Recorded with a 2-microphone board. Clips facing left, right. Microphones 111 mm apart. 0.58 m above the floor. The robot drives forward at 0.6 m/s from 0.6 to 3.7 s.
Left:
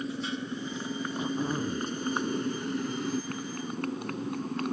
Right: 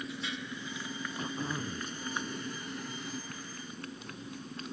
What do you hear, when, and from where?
0.0 s a motorcycle: 35° left (ahead or behind); by 4.7 s 65° left (ahead or behind)
1.2 s throat clearing: 20° left (ahead or behind)